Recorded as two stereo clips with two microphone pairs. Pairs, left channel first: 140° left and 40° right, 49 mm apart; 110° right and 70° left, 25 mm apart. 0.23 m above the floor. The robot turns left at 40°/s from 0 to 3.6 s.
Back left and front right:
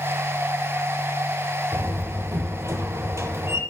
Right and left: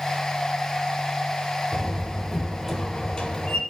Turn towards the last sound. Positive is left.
turn(degrees=-65)